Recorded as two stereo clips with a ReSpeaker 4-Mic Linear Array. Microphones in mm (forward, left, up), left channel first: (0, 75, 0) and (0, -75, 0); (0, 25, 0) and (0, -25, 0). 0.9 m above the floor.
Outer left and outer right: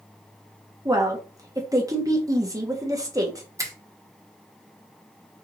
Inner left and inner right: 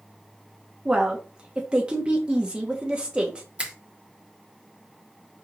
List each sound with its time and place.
0.8 s a woman speaking: 20° right (ahead or behind), 1.0 m
3.6 s a finger snap: 20° right (ahead or behind), 1.0 m